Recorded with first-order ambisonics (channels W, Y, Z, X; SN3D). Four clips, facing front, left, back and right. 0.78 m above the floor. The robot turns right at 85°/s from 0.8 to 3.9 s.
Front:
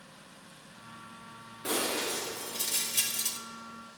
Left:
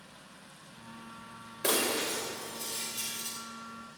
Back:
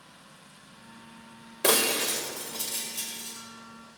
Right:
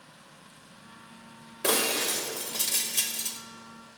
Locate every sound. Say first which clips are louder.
1.6 s breaking glass: right 3 dB, back 7 dB; 170° right, 2 m; by 3.4 s 25° right, 2 m